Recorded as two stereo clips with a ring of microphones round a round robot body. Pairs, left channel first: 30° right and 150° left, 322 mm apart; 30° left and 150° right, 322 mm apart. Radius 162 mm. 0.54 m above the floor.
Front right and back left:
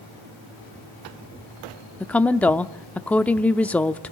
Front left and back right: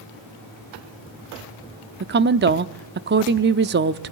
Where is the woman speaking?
115° right, 0.7 m.